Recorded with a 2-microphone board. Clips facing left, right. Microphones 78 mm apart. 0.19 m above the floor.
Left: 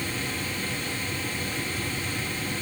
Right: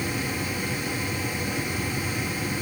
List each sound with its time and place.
Only background noise.